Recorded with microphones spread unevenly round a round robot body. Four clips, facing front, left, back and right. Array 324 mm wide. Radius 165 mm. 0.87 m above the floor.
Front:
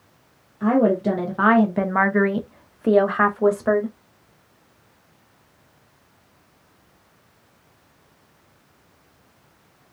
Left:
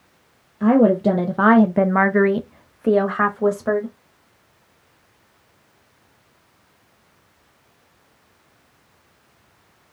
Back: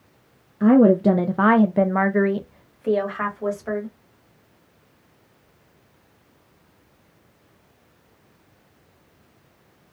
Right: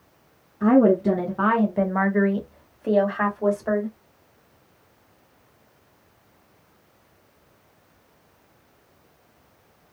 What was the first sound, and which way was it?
A woman speaking, 160° left.